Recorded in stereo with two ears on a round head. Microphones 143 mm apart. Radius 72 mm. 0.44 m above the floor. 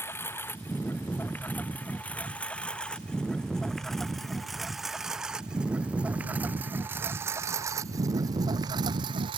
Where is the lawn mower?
15° left (ahead or behind); by 9.4 s 30° right (ahead or behind).